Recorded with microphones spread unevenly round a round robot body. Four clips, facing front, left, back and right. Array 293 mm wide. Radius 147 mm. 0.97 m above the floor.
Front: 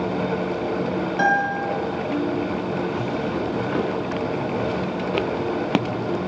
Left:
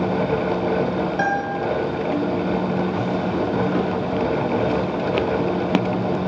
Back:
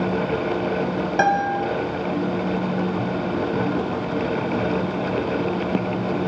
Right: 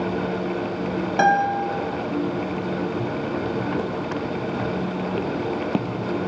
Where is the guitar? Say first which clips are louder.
Right 4 dB, back 2 dB; 135° right, 1.6 m.